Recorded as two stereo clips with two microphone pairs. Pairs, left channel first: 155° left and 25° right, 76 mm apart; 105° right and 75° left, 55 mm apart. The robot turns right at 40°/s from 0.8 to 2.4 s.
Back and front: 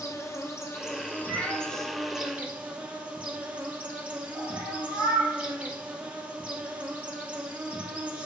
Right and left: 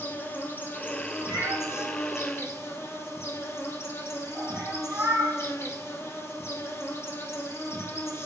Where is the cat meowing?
80° left, 1.7 m; by 5.4 s 125° left, 1.7 m.